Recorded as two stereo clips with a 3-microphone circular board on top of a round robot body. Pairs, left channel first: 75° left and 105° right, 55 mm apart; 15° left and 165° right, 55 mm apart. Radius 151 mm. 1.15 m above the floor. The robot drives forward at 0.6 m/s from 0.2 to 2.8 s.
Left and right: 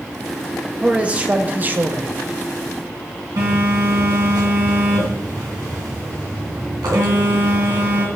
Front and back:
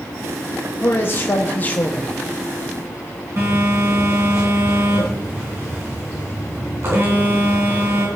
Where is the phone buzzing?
120° right, 3.5 m.